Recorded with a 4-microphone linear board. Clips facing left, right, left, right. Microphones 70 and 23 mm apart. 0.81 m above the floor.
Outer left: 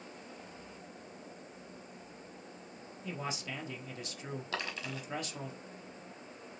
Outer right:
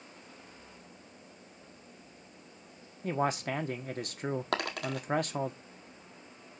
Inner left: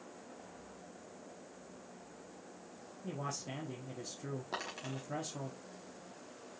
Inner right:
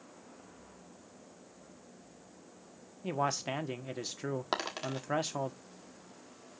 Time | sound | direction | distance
3.0 | a man speaking | 50° right (ahead or behind) | 1.3 m
4.5 | a dropped coin | 60° right (ahead or behind) | 1.6 m